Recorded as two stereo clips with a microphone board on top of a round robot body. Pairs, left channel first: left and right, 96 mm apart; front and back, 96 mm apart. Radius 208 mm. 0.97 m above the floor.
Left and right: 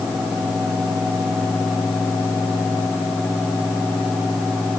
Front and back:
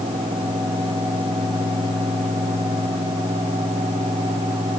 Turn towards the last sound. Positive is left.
No sound to turn to.